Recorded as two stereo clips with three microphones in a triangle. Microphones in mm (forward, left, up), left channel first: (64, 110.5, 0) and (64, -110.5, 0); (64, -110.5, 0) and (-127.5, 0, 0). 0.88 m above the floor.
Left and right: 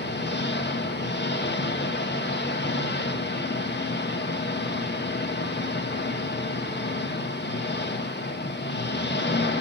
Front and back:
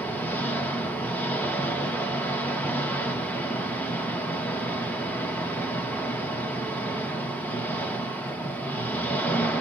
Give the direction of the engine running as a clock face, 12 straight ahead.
10 o'clock.